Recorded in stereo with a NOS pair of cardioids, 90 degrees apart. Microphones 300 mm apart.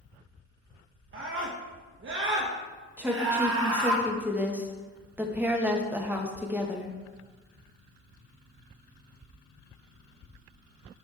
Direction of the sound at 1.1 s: 45° right.